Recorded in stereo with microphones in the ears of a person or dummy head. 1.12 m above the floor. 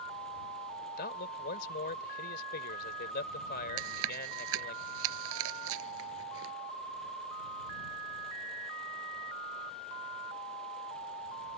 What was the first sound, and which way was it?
A man speaking, 50° left (ahead or behind).